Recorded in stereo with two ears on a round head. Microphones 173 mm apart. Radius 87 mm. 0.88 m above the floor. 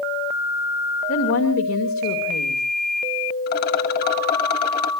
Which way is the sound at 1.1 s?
80° left.